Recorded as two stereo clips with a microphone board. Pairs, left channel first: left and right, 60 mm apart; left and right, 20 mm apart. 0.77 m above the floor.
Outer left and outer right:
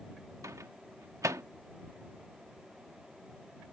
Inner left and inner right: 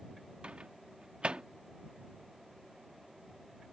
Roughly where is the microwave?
Right.